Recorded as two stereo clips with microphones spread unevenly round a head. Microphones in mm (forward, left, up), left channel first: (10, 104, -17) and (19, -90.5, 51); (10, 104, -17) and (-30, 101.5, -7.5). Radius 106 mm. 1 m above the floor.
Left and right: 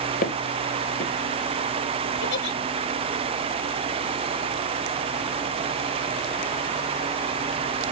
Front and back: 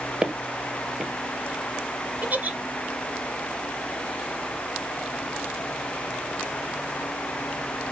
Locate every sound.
0.2 s footsteps: 150° left, 1.2 m
2.2 s a giggle: 130° left, 3 m